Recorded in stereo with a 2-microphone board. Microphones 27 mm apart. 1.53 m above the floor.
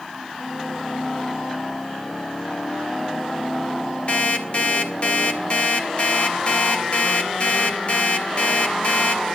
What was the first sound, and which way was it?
An alarm clock, 45° left (ahead or behind).